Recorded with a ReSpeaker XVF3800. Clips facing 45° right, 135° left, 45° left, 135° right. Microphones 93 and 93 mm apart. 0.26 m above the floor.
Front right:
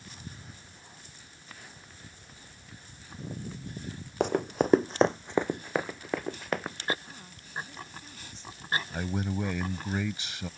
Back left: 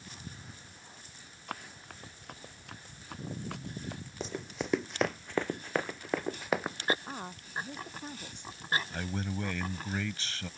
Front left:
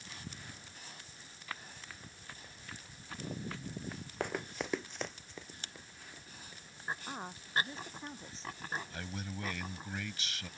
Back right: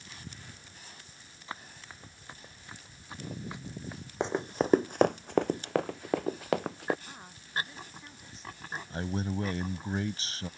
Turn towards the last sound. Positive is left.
turn(degrees=-110)